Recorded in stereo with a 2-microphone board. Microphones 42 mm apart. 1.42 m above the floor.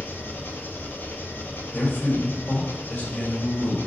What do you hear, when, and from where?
0.0 s an engine running: 55° left (ahead or behind), 1.5 m
1.7 s a man speaking: 50° left (ahead or behind), 5 m